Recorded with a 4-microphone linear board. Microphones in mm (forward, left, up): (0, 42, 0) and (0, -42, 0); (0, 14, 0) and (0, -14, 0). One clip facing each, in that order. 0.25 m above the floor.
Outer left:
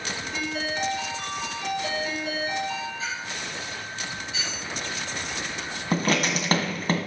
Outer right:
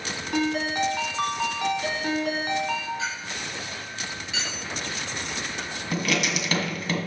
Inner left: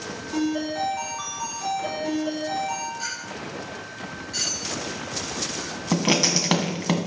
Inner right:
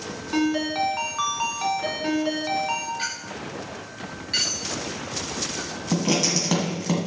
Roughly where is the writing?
Left.